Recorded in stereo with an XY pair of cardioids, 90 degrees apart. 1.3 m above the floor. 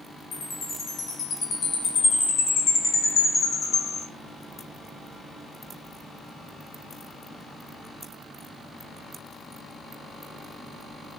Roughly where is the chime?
Ahead left.